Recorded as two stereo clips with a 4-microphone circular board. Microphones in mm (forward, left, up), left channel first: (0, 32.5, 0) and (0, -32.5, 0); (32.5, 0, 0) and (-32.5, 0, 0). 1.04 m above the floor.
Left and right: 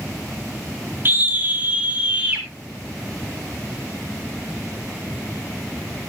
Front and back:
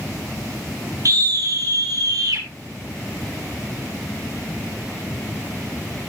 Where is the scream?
145° right, 1.8 m; by 2.5 s 165° right, 3.5 m.